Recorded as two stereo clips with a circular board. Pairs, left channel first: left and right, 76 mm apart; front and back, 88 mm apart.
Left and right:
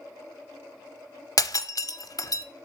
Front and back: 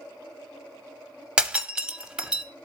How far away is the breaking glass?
About 0.6 m.